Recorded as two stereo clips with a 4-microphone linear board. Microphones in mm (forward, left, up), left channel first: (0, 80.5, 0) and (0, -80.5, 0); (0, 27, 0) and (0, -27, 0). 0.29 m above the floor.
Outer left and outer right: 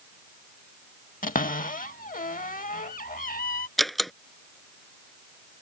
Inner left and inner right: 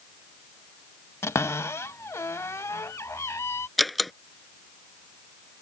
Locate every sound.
1.2 s a cupboard door: 60° left (ahead or behind)
3.8 s a door slam: centre (ahead or behind)